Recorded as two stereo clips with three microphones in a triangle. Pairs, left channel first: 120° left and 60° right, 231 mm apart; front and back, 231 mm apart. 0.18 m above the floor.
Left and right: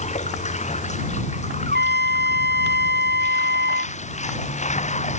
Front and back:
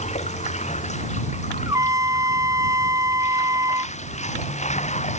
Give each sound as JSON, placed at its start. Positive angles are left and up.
{"t": 0.0, "sound": "running water", "azimuth_deg": 60}
{"t": 1.7, "sound": "a trumpet", "azimuth_deg": -105}